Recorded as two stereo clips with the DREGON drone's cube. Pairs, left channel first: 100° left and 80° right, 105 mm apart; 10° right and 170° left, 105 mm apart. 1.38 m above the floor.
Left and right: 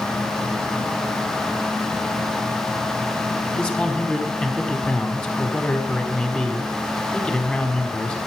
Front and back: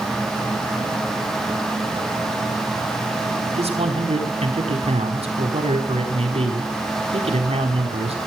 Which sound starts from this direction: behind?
A man speaking, at 3.6 s.